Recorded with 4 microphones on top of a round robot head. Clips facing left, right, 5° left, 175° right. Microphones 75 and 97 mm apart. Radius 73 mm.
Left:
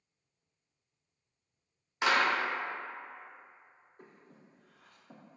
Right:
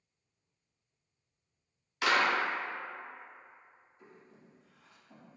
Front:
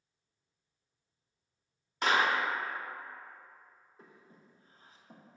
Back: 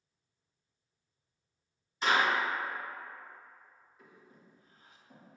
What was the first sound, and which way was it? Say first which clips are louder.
A clap: even, even; 30° left.